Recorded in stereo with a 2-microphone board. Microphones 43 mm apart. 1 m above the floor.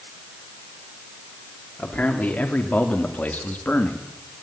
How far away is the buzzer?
No buzzer in this recording.